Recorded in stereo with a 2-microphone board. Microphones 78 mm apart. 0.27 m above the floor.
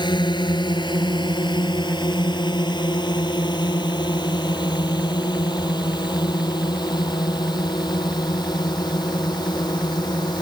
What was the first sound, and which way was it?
A drone, 70° left (ahead or behind).